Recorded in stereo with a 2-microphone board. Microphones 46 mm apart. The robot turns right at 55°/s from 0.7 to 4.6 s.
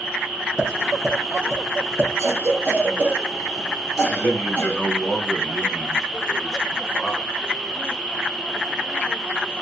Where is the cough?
55° right (ahead or behind), 2 m; by 4.9 s 45° left (ahead or behind), 2 m.